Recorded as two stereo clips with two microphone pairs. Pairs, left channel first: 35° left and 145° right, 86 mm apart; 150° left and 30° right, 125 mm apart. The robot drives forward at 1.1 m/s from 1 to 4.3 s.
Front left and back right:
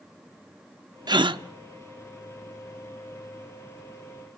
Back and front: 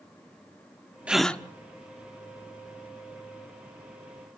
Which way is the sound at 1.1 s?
110° right.